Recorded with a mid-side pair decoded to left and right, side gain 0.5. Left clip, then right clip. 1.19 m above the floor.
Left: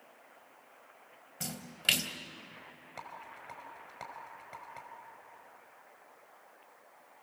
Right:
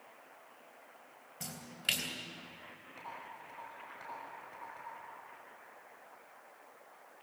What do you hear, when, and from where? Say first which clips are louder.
1.4 s a splash: left 5 dB; 40° left, 3 m
3.0 s a rattle: left 1 dB; 65° left, 5.5 m